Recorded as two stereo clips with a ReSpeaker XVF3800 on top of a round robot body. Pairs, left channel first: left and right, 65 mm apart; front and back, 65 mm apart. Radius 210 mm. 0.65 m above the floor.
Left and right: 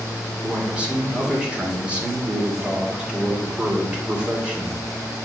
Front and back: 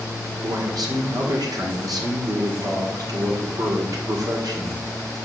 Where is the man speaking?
165° right, 2.5 m.